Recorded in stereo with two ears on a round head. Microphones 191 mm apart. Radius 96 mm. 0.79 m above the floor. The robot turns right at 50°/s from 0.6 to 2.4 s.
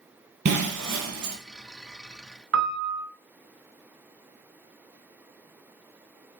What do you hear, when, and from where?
0.5 s breaking glass: 125° right, 3.5 m; by 1.4 s 90° right, 3.5 m
2.5 s a piano: 65° right (ahead or behind), 1.8 m